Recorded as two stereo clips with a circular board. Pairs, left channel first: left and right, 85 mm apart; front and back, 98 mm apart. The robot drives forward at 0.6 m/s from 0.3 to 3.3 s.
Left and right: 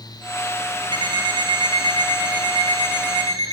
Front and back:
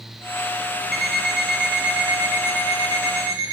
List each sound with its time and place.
0.9 s an alarm clock: 90° right, 2.5 m; by 3.5 s 120° right, 2.5 m